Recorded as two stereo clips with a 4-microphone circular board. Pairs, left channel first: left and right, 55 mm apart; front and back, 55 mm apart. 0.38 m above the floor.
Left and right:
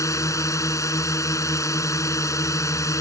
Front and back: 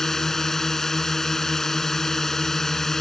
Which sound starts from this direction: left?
A drone, at 0.0 s.